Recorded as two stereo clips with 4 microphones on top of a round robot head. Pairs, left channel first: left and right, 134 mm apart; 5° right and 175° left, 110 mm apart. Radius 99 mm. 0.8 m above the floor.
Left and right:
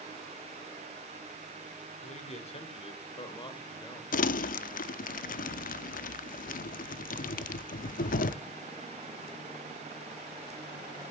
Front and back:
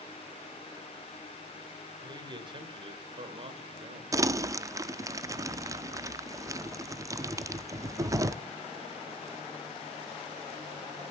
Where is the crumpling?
110° left, 0.7 m.